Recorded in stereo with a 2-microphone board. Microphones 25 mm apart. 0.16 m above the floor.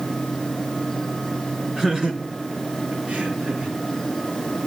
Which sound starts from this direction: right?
Laughter, at 1.8 s.